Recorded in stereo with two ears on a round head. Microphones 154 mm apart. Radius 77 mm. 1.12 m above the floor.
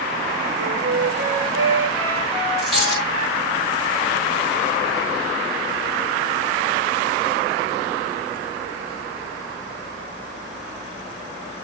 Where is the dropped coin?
Centre (ahead or behind), 6 m.